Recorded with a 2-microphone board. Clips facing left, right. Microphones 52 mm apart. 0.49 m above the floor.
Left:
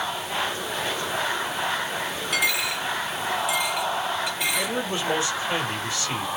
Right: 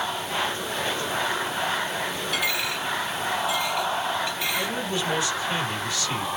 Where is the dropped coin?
70° left (ahead or behind), 2 m.